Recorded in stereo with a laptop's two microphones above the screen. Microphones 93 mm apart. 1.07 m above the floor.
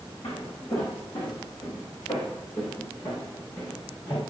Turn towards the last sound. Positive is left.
turn(degrees=50)  # may be behind; listen again after turning